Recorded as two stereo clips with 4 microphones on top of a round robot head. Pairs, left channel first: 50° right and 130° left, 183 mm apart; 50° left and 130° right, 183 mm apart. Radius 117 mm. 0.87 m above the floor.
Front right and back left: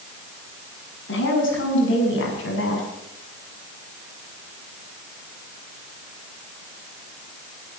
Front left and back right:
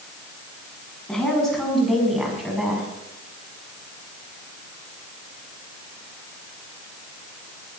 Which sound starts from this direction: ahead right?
A woman speaking, at 1.1 s.